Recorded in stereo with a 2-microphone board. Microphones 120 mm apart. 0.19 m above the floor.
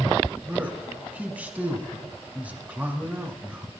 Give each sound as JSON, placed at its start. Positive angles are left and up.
{"t": 0.5, "sound": "a man speaking", "side_deg": -15, "distance_m": 1.2}